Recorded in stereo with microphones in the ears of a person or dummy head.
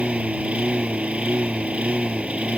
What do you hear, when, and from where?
0.0 s a lawn mower: 10° right (ahead or behind)